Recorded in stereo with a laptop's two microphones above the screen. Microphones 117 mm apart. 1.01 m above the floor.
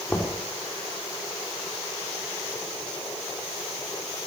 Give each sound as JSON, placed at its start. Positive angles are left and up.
{"t": 0.1, "sound": "knocking", "side_deg": 10, "distance_m": 3.0}